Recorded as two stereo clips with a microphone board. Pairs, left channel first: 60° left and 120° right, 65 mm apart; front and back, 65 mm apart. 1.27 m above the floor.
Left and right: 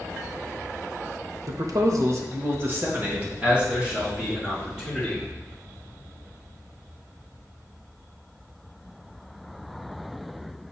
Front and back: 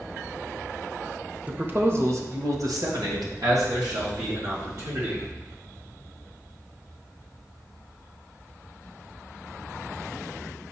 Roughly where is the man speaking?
Behind right.